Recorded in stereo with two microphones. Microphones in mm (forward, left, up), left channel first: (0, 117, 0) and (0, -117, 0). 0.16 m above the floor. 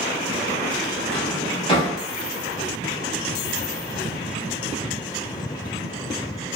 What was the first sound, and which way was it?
A drawer, 20° left (ahead or behind).